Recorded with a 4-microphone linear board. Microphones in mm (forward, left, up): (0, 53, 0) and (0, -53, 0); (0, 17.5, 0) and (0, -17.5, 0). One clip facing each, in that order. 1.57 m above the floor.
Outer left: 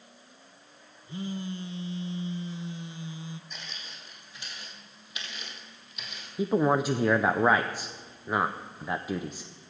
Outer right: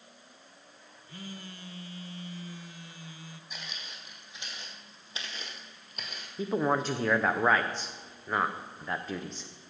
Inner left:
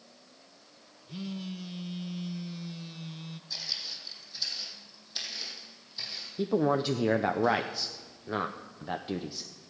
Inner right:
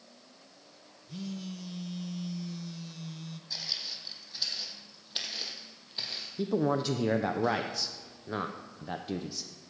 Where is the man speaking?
10° left (ahead or behind), 0.6 m.